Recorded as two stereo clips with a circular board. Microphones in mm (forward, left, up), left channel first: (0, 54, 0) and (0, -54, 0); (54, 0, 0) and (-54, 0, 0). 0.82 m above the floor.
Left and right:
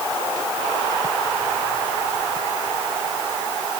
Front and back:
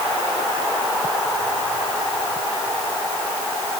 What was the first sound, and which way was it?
Only background noise.